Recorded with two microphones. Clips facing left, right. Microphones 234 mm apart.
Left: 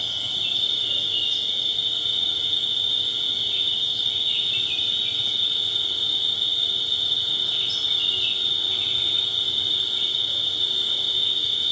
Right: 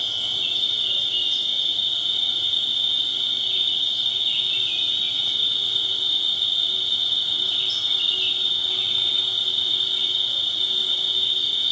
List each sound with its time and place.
0.0 s an insect: 5° left (ahead or behind), 2.5 m